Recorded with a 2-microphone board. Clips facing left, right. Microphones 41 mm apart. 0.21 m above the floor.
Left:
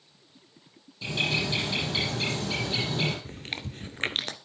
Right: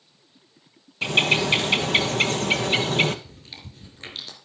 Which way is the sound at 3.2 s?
55° left (ahead or behind).